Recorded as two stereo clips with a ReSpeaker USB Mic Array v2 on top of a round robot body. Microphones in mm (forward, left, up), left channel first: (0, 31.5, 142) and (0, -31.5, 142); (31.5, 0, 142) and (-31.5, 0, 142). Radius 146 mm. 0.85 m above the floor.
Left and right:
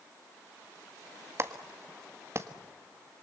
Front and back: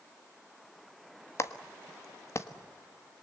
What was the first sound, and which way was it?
A clap, 45° right.